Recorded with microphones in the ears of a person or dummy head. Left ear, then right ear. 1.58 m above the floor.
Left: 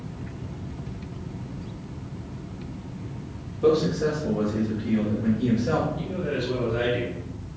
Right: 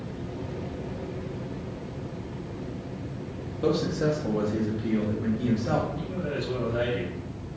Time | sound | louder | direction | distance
3.6 | a man speaking | left 4 dB | 40° right (ahead or behind) | 0.6 m
6.0 | a man speaking | left 3 dB | 10° left (ahead or behind) | 0.7 m